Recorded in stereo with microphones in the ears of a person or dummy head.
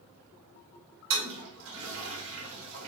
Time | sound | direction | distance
1.1 | a toilet flushing | 80° right | 2.5 m